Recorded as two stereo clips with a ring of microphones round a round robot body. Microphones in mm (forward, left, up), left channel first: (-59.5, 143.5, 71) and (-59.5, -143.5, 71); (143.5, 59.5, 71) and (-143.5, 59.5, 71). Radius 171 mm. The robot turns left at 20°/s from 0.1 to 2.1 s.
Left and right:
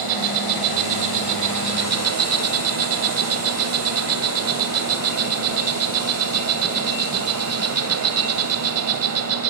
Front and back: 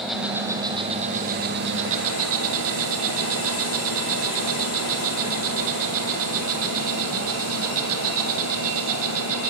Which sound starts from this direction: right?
An insect, at 0.0 s.